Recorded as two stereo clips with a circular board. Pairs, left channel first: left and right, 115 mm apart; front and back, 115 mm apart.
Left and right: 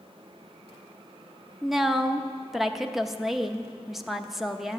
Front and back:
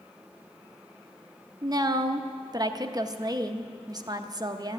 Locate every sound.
1.6 s a woman speaking: 175° right, 0.8 m